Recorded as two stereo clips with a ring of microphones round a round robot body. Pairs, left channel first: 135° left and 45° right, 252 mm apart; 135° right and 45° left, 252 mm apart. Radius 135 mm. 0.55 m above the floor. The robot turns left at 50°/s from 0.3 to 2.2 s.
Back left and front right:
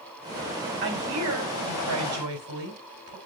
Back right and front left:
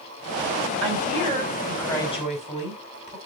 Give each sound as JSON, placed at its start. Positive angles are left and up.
{"t": 0.8, "sound": "a woman speaking", "azimuth_deg": 0, "distance_m": 4.5}